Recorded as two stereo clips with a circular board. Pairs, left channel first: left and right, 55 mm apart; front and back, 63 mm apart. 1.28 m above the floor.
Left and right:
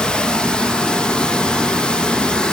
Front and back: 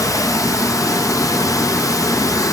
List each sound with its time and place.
0.0 s running water: 20° left, 0.8 m